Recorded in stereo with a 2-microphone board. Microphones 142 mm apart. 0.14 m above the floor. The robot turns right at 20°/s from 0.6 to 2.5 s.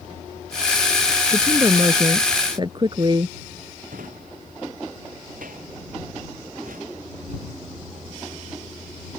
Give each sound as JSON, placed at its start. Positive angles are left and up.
{"t": 1.3, "sound": "a woman speaking", "side_deg": -15}
{"t": 3.9, "sound": "a drawer", "side_deg": -70}